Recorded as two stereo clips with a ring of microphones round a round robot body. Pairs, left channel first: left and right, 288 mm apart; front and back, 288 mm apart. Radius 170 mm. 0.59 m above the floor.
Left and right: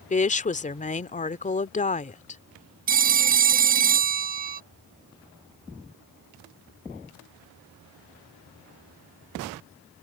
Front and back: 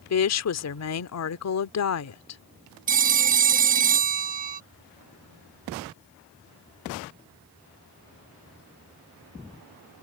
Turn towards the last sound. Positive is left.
turn(degrees=-135)